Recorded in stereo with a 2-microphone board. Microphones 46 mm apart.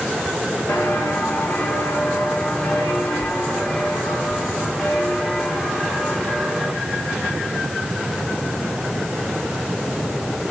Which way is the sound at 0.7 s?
50° left (ahead or behind).